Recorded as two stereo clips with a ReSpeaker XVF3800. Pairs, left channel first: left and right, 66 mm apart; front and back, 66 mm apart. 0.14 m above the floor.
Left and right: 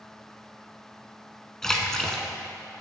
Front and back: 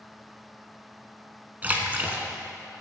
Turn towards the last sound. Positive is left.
turn(degrees=165)